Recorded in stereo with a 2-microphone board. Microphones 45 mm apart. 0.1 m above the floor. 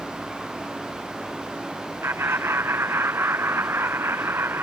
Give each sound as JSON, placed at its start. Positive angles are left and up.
{"t": 2.0, "sound": "laughter", "side_deg": -80}